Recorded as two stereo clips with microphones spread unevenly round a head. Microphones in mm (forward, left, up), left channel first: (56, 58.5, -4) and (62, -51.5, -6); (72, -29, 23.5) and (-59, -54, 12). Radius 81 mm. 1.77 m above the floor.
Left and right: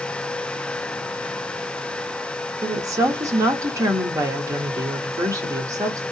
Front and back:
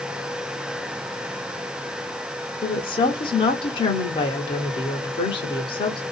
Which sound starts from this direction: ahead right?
A woman speaking, at 2.6 s.